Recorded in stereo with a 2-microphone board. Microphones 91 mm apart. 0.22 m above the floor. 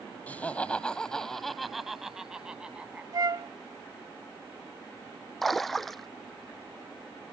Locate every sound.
0.3 s laughter: 20° left (ahead or behind); by 3.0 s 15° right (ahead or behind)
3.1 s a flute: 45° right (ahead or behind)
5.4 s a splash: 5° left (ahead or behind)